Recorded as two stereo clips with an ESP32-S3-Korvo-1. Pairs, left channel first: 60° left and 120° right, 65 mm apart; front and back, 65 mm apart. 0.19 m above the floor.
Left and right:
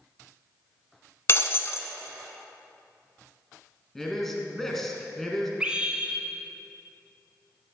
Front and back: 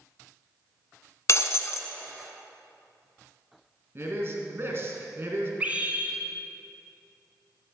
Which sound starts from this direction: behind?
A scream, at 5.6 s.